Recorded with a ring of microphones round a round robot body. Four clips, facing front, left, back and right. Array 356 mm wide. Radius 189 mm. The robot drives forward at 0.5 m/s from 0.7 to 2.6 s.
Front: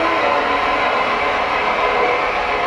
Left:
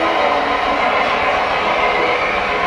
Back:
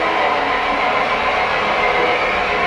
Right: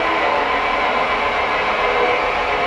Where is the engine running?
75° left, 0.8 m; by 2.7 s 140° left, 1.1 m.